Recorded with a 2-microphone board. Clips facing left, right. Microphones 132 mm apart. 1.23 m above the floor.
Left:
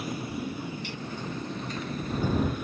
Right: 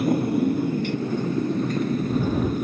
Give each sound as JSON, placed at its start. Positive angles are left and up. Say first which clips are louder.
{"t": 0.0, "sound": "a motorcycle", "louder": "right 13 dB", "side_deg": -55}